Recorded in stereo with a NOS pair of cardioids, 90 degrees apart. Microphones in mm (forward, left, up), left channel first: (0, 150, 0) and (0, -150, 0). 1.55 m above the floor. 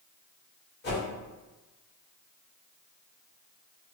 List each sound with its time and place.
0.8 s a whoosh: 35° left, 1.9 m